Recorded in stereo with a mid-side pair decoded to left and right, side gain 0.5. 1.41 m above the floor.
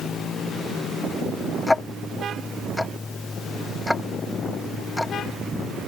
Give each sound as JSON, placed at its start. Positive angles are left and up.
{"t": 1.7, "sound": "ticking", "azimuth_deg": 10}